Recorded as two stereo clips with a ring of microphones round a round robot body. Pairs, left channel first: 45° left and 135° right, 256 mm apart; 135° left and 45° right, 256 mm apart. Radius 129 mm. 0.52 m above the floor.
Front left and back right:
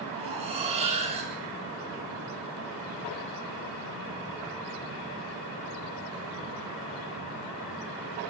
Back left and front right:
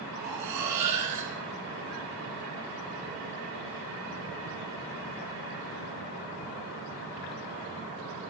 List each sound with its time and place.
0.1 s cutlery clinking: 65° right, 4 m